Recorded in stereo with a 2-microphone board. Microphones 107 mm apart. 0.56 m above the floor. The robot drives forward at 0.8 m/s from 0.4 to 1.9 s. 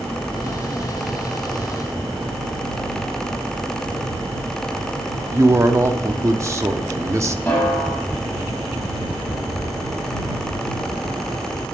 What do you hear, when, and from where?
5.3 s a man speaking: 30° right (ahead or behind), 0.8 m
7.5 s a snare drum: 20° left (ahead or behind), 6 m